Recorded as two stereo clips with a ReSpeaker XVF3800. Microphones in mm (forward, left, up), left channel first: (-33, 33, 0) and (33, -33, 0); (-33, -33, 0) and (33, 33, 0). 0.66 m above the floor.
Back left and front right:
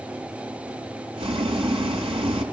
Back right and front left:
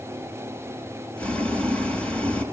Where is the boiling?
60° right, 2 m.